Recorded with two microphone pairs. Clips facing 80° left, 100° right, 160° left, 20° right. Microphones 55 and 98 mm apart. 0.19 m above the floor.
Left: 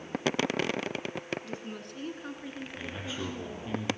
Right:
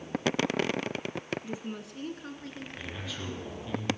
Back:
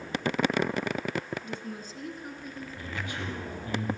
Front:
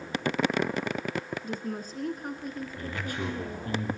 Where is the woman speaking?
35° right, 1.8 m; by 3.8 s 25° left, 3.5 m.